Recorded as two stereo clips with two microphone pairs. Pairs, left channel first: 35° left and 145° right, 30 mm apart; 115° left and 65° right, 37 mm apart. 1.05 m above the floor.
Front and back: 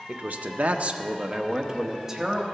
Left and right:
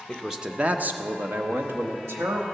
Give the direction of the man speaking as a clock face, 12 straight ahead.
5 o'clock.